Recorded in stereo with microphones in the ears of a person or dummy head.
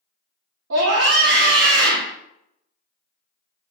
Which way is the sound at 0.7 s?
75° right (ahead or behind).